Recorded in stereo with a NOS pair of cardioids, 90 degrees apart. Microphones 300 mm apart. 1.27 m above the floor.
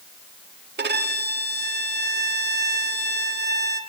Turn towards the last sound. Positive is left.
turn(degrees=-35)